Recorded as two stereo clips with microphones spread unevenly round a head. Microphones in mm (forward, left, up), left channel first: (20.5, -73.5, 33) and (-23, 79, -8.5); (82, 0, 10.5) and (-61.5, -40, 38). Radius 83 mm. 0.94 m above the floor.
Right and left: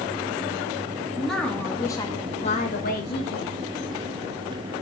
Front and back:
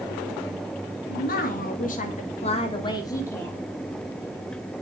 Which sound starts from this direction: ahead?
A woman speaking, at 1.1 s.